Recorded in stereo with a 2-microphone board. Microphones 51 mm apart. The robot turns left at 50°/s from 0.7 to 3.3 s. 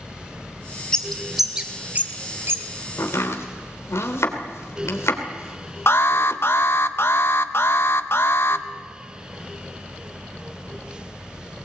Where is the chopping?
85° left, 3 m; by 6.4 s 75° left (ahead or behind), 3 m.